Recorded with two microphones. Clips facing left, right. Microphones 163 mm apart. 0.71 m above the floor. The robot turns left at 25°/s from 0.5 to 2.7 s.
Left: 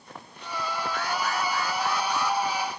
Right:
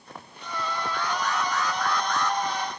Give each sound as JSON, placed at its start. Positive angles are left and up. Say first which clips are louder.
{"t": 0.9, "sound": "an alarm", "louder": "right 1 dB", "azimuth_deg": 50}